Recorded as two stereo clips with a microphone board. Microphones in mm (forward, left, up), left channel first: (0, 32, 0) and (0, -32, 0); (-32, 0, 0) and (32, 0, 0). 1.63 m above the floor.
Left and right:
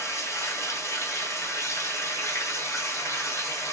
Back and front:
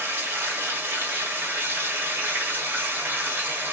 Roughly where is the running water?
Ahead left.